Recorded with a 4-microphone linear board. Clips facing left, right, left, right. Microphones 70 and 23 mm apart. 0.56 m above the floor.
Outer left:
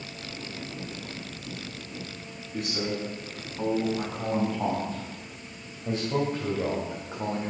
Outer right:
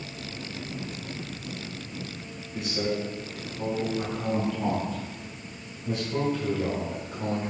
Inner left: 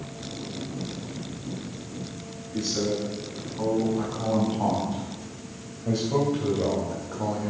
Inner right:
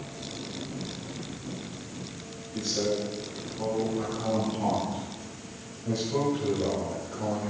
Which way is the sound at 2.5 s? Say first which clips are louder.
Outer right 2 dB, inner left 1 dB; 60° left (ahead or behind).